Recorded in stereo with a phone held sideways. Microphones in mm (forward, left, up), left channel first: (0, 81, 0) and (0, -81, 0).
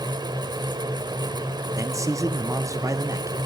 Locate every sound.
0.0 s a fan: 25° right (ahead or behind), 0.8 m
1.7 s a man speaking: 20° right (ahead or behind), 0.5 m